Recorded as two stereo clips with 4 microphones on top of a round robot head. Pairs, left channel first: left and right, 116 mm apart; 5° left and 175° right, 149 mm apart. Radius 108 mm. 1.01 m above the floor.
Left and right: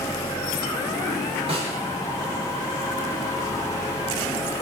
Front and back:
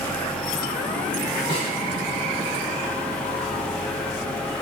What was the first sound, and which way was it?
A snare drum, 55° right.